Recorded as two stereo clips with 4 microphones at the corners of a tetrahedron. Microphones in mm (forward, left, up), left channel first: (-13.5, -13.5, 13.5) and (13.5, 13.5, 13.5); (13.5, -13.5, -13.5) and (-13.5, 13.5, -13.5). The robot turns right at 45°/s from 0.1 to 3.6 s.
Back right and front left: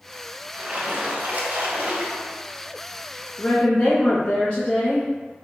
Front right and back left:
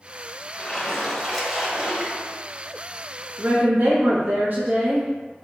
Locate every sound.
0.5 s a splash: 10° left, 0.9 m; by 2.4 s 95° left, 0.9 m
3.4 s a woman speaking: 160° left, 0.6 m; by 5.1 s 170° left, 0.6 m